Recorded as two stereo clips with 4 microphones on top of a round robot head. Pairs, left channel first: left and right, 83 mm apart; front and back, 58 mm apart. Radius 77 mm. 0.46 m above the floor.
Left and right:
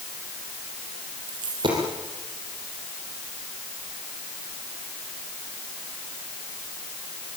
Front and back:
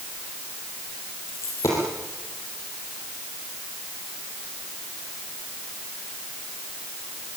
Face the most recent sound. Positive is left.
turn(degrees=-50)